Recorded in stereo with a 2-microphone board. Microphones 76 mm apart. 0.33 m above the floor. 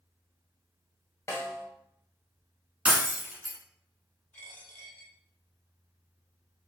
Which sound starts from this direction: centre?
Breaking glass, at 2.9 s.